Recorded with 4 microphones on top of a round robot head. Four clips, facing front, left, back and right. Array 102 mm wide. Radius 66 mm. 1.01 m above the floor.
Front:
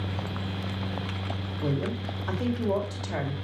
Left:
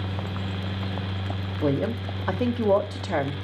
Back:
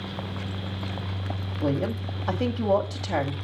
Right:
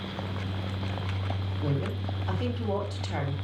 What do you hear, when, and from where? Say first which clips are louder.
1.6 s a woman speaking: left 8 dB, back 4 dB; 105° left, 2 m